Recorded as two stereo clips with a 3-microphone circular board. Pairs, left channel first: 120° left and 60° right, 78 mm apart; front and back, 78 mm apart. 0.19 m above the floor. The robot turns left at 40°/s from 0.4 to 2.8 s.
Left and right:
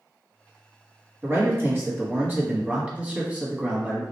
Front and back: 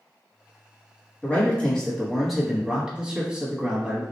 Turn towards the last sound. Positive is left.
turn(degrees=-115)